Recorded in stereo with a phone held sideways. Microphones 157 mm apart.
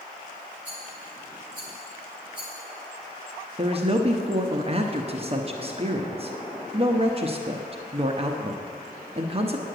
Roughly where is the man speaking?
Right.